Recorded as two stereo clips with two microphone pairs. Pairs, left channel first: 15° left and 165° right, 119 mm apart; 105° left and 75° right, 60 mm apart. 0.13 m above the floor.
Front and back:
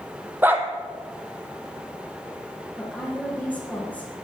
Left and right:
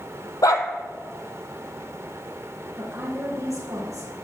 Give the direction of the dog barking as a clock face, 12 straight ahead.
8 o'clock.